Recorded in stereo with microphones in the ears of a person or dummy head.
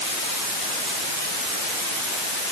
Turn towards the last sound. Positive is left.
No sound to turn to.